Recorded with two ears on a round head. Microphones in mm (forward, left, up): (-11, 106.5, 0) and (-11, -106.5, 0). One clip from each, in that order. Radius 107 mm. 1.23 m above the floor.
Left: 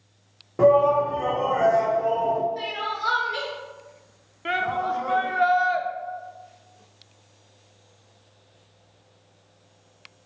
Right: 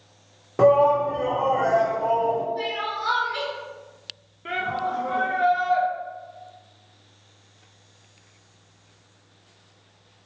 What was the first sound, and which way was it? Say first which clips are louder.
A shout: even; 25° right (ahead or behind).